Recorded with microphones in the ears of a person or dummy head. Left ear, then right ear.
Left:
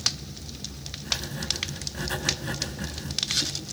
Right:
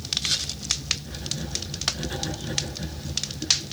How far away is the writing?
About 3.5 m.